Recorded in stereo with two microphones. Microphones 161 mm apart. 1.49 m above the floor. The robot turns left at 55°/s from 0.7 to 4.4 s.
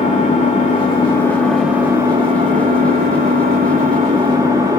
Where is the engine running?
50° left, 2.5 m; by 4.8 s 155° right, 2.5 m.